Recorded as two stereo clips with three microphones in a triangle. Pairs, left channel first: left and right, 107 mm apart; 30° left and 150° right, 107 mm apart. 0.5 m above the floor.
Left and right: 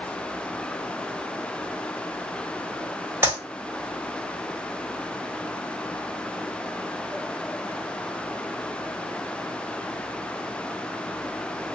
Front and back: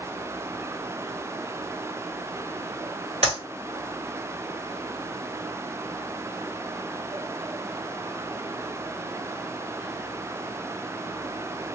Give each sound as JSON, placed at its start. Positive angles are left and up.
{"t": 3.2, "sound": "a clap", "azimuth_deg": -155, "distance_m": 2.5}